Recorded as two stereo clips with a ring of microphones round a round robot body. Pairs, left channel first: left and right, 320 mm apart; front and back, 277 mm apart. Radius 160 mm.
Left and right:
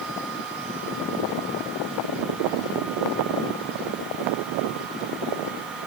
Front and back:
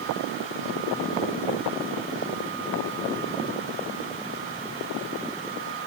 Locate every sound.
Only background noise.